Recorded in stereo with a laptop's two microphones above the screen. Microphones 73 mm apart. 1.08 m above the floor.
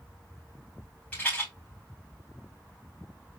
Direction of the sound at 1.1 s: 20° left (ahead or behind).